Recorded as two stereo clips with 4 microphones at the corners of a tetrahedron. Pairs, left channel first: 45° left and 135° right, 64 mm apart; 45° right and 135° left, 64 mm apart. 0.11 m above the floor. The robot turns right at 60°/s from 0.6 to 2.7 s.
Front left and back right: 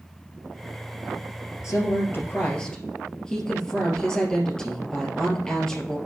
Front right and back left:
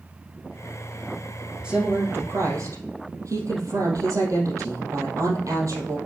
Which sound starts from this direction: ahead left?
A woman speaking, at 1.6 s.